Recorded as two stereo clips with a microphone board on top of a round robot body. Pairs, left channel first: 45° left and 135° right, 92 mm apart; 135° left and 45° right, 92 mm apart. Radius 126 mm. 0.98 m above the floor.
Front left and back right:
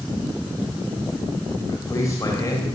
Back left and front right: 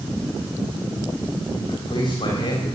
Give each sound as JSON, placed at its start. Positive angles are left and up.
{"t": 1.7, "sound": "a man speaking", "azimuth_deg": 100, "distance_m": 4.0}